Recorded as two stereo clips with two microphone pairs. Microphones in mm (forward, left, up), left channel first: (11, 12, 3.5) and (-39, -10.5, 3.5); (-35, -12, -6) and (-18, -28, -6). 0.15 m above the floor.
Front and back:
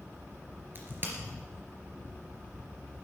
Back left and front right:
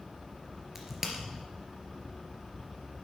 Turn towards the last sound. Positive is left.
turn(degrees=-115)